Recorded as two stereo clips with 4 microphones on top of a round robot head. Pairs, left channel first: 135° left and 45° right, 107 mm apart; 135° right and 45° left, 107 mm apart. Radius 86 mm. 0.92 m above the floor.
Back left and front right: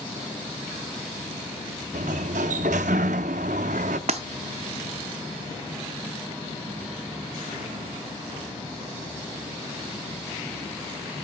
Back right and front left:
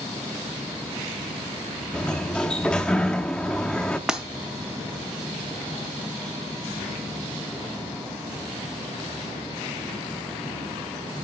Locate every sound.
1.9 s a sliding door: 50° right, 0.5 m
4.1 s breaking glass: 35° right, 0.5 m